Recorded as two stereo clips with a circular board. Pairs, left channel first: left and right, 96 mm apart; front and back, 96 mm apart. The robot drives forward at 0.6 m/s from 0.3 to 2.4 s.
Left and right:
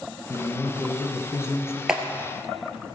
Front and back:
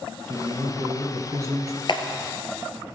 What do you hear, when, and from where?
0.3 s a man speaking: 105° left, 1.7 m; by 1.8 s 145° left, 2 m
1.9 s a clap: 10° right, 1.4 m